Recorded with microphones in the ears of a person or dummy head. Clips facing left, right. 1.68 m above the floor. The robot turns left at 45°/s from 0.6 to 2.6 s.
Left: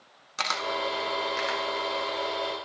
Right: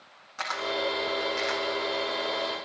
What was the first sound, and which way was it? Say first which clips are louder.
A camera shutter: right 1 dB; 45° left (ahead or behind).